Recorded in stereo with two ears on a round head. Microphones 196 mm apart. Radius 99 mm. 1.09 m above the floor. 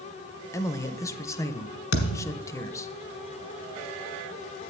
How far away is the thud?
About 1.4 m.